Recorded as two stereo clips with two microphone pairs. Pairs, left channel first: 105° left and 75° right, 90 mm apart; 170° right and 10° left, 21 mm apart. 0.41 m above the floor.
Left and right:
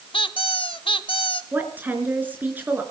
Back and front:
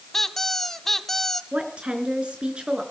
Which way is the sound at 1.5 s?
5° right.